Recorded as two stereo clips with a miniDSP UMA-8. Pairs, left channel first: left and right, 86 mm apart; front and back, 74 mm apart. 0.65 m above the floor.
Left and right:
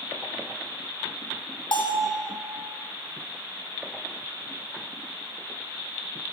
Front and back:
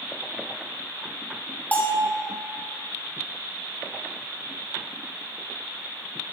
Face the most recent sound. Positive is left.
turn(degrees=70)